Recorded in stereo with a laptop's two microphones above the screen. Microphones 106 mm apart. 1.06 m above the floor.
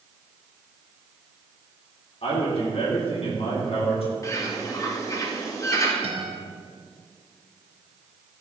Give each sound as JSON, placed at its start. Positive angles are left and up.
{"t": 2.2, "sound": "a man speaking", "side_deg": 65, "distance_m": 3.0}
{"t": 4.2, "sound": "a bird", "side_deg": 30, "distance_m": 1.0}
{"t": 6.0, "sound": "a guitar", "side_deg": -65, "distance_m": 1.5}